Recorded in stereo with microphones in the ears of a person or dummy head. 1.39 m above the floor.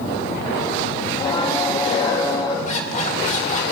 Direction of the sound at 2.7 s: 45° left (ahead or behind).